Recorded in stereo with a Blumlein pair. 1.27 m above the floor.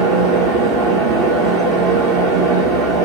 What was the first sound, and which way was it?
A fan, 35° right.